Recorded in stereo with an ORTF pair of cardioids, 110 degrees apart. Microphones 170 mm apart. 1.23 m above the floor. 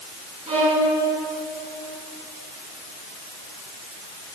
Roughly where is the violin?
Ahead right.